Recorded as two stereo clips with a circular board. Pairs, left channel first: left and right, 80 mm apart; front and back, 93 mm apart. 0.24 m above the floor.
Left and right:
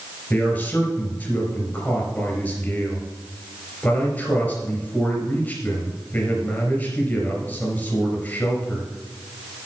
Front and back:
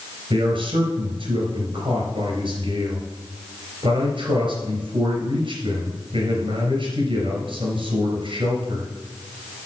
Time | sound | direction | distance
0.3 | a man speaking | 160° left | 3.5 m